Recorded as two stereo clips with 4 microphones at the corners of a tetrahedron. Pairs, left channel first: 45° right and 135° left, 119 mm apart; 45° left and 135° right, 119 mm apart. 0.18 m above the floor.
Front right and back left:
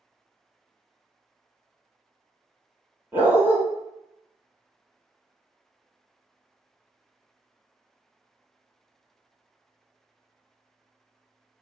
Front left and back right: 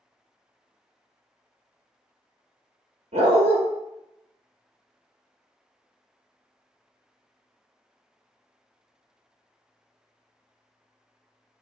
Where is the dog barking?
150° right, 1.6 m.